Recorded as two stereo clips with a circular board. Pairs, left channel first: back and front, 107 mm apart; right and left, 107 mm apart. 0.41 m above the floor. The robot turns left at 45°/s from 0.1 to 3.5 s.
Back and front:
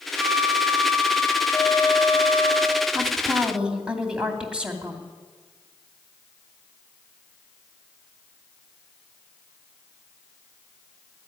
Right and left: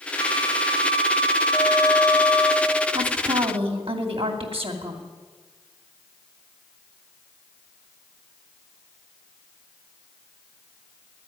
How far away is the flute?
About 1.0 m.